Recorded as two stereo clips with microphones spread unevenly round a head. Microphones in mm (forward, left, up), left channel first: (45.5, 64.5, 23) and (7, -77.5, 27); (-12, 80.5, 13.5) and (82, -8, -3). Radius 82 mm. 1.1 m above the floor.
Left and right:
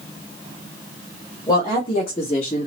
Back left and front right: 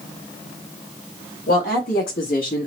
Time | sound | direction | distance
1.5 | a woman speaking | 140° left | 1.6 m